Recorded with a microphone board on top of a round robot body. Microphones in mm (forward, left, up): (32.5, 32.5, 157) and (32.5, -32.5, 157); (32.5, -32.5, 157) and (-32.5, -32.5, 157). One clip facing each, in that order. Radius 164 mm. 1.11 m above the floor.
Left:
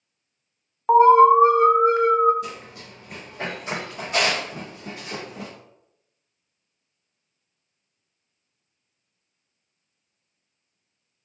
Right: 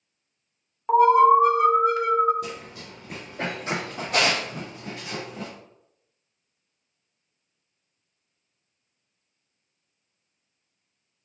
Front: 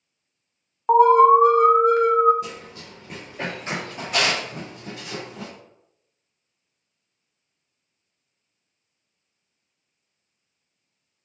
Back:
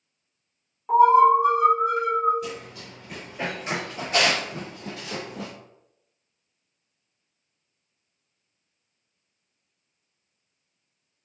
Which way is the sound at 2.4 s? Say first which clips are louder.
Even, back 2 dB; 60° right.